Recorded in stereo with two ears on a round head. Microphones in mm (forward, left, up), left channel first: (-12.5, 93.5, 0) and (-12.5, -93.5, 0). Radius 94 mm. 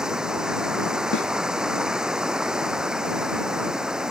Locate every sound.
0.0 s running water: 5° right (ahead or behind)
1.1 s a snare drum: 60° left (ahead or behind)